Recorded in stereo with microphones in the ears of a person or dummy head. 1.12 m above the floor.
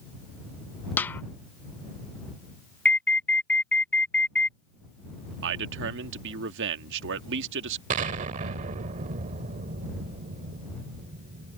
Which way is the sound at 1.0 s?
5° left (ahead or behind).